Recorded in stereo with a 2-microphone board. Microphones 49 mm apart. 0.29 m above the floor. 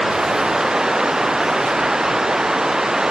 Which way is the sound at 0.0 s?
10° right (ahead or behind).